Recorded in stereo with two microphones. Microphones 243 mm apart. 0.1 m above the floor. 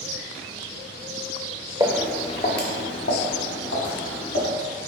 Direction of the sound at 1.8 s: 15° right (ahead or behind).